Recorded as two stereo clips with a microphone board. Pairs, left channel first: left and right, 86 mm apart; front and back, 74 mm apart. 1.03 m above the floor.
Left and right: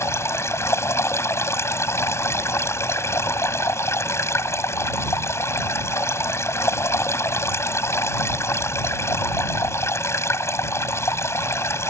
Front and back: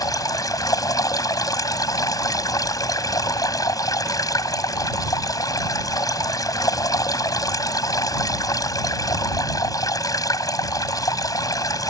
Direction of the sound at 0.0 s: 30° left.